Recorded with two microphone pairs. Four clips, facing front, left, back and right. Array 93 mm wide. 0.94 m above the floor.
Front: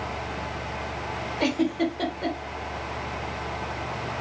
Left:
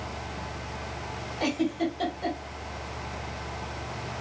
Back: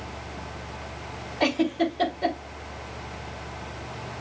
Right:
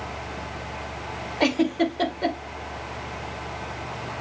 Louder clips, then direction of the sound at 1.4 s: Right 6 dB, back 1 dB; 80° right.